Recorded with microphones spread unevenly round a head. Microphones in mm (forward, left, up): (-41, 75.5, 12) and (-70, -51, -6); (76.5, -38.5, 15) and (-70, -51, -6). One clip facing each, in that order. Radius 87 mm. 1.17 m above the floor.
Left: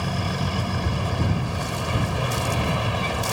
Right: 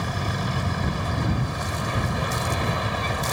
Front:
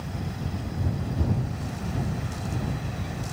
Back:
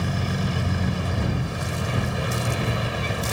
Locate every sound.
0.0 s a vehicle: 155° left